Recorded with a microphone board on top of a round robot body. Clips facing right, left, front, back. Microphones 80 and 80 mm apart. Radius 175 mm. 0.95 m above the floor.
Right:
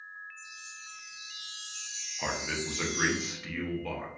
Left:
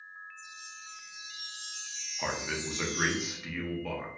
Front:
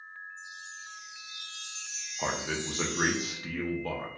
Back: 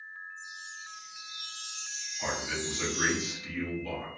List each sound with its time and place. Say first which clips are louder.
0.4 s a chime: even, even; 125° left, 0.5 m
2.2 s a man speaking: even, front 2 dB; 10° left, 0.7 m